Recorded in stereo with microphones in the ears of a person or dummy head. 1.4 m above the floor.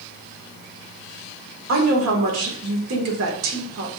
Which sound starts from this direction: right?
A woman speaking, at 1.7 s.